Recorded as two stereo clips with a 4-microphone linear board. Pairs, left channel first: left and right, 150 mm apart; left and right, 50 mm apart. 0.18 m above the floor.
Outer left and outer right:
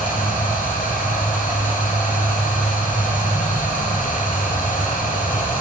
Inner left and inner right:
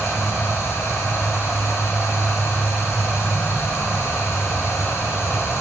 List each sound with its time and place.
0.0 s running water: 65° left (ahead or behind), 1.9 m